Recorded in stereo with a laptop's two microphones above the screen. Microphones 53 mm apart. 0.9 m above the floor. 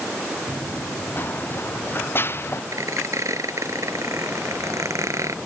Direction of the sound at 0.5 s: 35° left (ahead or behind).